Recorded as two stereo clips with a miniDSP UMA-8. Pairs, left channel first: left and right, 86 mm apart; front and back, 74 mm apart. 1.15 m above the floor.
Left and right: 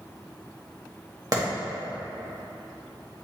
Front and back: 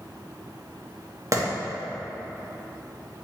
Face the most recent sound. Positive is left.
turn(degrees=-135)